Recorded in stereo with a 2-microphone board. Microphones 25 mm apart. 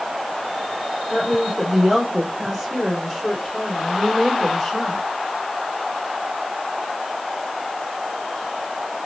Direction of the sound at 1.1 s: 20° right (ahead or behind).